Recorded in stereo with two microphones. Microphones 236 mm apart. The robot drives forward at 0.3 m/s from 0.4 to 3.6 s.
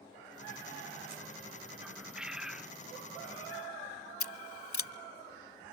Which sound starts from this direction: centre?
A bird, at 1.8 s.